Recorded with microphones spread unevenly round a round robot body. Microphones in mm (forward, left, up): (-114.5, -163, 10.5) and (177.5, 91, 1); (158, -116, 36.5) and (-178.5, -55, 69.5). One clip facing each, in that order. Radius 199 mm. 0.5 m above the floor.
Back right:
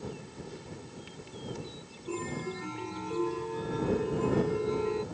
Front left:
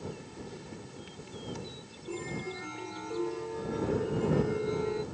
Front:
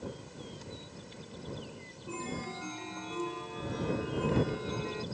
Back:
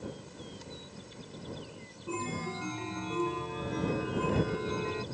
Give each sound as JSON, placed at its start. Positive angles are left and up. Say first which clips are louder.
{"t": 2.1, "sound": "a chime", "louder": "back right 2 dB, back 3 dB", "azimuth_deg": 145}